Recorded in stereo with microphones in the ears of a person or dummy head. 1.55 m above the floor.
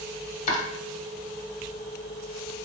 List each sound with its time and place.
0.5 s chopping: 40° left (ahead or behind), 1.1 m